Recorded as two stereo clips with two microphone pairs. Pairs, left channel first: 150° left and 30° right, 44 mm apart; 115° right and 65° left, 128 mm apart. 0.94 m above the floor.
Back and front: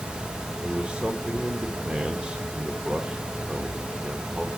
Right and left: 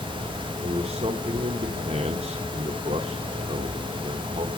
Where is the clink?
No clink in this recording.